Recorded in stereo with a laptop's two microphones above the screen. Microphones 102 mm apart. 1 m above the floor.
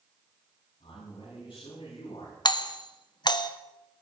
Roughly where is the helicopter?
No helicopter in this recording.